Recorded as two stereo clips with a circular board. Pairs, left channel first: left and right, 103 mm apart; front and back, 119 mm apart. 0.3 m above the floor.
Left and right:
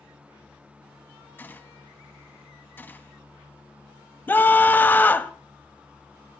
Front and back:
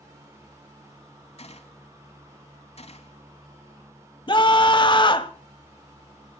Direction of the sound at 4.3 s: 25° left.